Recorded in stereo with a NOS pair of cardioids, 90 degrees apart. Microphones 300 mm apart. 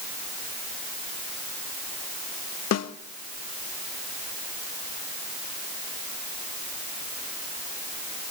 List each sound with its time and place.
2.7 s a snare drum: 60° left, 1.2 m